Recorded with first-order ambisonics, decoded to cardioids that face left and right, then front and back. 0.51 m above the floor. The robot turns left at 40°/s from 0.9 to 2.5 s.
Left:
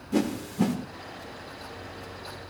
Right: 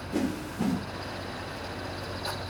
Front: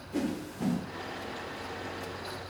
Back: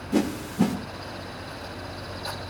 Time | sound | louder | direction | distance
0.1 | a whoosh | left 4 dB, back 8 dB | 155° left | 1.3 m